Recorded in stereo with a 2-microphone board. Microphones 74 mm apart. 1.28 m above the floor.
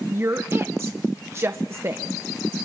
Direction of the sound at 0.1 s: 35° right (ahead or behind).